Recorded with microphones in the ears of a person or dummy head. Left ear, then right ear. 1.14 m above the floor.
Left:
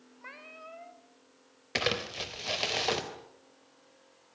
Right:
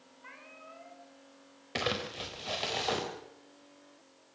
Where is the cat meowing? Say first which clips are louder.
Left 4 dB; 40° left (ahead or behind), 2.5 m.